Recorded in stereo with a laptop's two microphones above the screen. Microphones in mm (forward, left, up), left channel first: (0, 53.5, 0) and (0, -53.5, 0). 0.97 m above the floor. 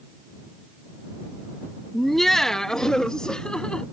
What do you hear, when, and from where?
1.9 s laughter: centre (ahead or behind); by 3.8 s 5° left (ahead or behind)